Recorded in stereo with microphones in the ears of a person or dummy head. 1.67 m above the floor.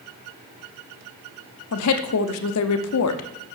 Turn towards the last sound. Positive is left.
turn(degrees=75)  # may be behind; listen again after turning